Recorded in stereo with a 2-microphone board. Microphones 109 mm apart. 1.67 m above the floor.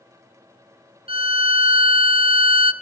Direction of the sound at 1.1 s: 60° right (ahead or behind).